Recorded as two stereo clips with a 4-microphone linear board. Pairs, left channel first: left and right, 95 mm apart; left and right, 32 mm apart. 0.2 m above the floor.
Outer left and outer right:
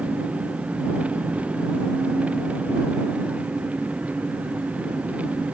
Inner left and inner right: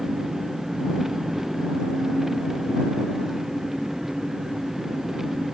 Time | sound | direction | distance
0.0 | an engine running | 15° right (ahead or behind) | ?